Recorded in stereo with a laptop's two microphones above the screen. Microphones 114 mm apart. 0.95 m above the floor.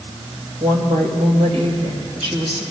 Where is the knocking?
No knocking in this recording.